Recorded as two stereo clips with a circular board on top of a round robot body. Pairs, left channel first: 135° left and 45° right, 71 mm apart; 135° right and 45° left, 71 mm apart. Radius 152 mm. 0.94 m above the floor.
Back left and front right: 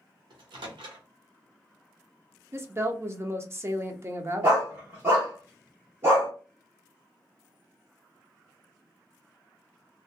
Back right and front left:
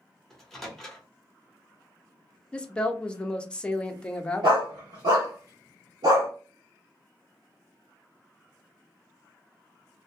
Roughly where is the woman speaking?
Ahead right.